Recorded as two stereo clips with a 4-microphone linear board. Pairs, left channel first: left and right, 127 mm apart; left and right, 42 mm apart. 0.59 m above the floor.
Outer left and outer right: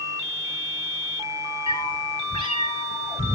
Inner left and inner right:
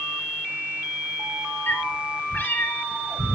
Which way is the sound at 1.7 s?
40° left (ahead or behind).